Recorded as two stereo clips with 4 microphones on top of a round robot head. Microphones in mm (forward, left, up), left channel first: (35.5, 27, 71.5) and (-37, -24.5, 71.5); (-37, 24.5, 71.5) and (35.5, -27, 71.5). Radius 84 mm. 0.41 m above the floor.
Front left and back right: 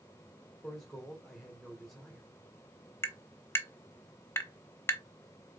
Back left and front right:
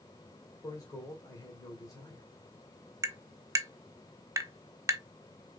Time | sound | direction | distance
0.6 | a man speaking | 120° left | 1.7 m
3.0 | tapping | 10° right | 1.2 m